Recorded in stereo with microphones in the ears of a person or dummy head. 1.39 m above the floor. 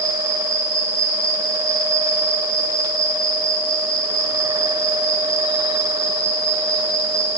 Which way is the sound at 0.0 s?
25° left (ahead or behind).